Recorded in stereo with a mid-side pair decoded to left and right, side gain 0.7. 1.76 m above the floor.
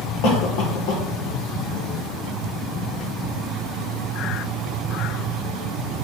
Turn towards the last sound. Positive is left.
turn(degrees=70)